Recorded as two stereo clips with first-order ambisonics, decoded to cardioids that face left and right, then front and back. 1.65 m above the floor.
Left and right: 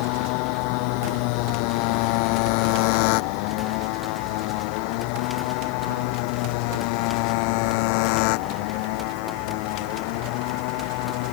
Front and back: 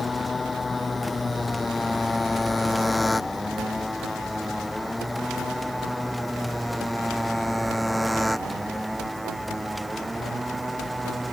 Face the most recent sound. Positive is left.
turn(degrees=95)